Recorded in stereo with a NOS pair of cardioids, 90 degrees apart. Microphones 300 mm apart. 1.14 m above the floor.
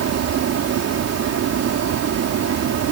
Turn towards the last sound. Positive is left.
turn(degrees=-65)